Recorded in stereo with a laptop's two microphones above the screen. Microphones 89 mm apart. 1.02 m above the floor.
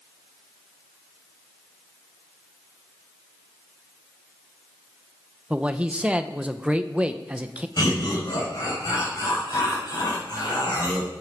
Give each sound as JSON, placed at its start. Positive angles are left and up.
{"t": 5.5, "sound": "a man speaking", "side_deg": -15, "distance_m": 0.5}
{"t": 7.8, "sound": "laughter", "side_deg": 50, "distance_m": 4.5}